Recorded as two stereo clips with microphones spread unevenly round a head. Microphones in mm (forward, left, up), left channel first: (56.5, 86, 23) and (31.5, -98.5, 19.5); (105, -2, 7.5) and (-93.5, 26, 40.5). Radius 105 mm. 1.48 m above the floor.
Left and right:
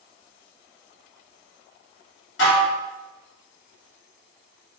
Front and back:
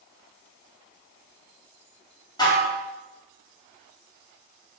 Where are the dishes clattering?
65° left, 2.5 m.